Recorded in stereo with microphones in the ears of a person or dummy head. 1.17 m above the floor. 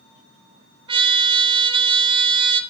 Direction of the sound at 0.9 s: 25° right (ahead or behind).